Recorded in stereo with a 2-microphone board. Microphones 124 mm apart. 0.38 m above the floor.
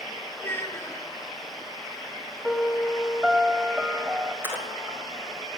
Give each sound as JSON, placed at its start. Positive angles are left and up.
{"t": 0.4, "sound": "a child speaking", "side_deg": 15, "distance_m": 2.5}
{"t": 2.4, "sound": "a piano", "side_deg": -5, "distance_m": 1.3}
{"t": 4.4, "sound": "a splash", "side_deg": -20, "distance_m": 2.5}